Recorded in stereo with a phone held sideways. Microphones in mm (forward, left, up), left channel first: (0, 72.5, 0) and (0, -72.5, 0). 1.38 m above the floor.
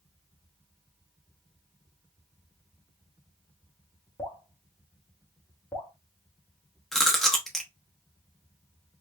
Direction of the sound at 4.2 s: 15° left (ahead or behind).